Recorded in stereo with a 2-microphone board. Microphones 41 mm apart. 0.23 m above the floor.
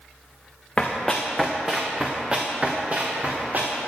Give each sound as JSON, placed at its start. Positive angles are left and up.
{"t": 0.8, "sound": "running footsteps", "side_deg": 20, "distance_m": 1.4}